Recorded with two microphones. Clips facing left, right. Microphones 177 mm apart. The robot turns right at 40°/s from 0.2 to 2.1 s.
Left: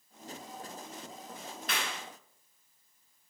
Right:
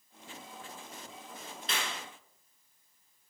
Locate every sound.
1.7 s a clap: 25° right (ahead or behind), 1.0 m; by 2.0 s 30° right (ahead or behind), 1.0 m